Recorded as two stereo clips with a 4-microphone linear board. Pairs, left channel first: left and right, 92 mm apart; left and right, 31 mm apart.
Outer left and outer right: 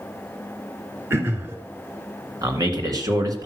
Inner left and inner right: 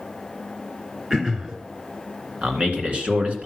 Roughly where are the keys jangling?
No keys jangling in this recording.